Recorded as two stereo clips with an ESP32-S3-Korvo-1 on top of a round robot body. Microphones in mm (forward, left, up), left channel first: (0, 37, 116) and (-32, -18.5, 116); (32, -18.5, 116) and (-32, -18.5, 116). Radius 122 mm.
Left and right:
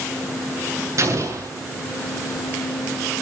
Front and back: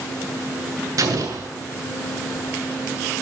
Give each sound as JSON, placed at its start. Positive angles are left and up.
{"t": 1.0, "sound": "an explosion", "azimuth_deg": -155, "distance_m": 8.0}